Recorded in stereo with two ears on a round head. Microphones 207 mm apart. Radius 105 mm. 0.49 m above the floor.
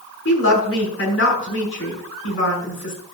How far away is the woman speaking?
About 6.5 m.